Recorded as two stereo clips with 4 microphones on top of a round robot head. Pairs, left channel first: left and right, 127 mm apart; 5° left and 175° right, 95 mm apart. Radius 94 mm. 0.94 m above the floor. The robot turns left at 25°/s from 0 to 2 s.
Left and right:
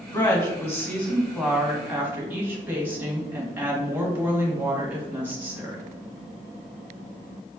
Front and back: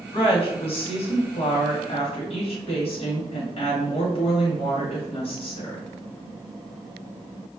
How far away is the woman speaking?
About 1.4 m.